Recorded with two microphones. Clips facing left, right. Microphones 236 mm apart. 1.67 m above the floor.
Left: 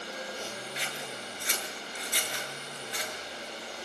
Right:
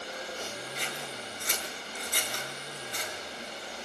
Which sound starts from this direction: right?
Scissors, at 0.8 s.